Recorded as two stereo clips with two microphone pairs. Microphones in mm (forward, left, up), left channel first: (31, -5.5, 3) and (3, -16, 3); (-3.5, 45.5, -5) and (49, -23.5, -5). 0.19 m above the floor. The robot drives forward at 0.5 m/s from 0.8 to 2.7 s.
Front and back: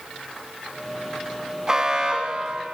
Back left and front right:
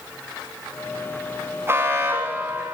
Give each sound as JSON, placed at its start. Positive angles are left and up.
{"t": 1.7, "sound": "an alarm", "azimuth_deg": -100, "distance_m": 3.0}